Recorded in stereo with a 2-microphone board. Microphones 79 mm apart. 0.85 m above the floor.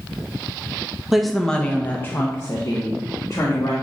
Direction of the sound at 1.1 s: 5° right (ahead or behind).